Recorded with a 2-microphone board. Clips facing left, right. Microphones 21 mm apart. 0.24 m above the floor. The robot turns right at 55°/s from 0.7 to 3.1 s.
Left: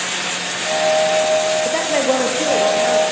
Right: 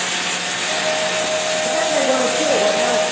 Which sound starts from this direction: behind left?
A woman speaking, at 1.6 s.